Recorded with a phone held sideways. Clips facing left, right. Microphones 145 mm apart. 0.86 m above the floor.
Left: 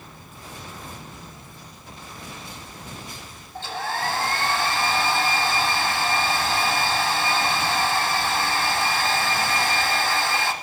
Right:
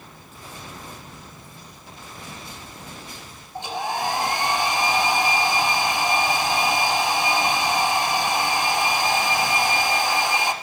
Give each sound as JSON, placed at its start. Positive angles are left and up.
{"t": 3.5, "sound": "a hair dryer", "side_deg": -20, "distance_m": 0.8}